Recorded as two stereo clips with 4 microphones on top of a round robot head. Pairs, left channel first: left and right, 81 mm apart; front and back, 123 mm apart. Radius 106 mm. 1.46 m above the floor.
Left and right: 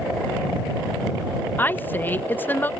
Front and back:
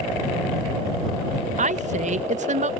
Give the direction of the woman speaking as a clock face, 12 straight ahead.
7 o'clock.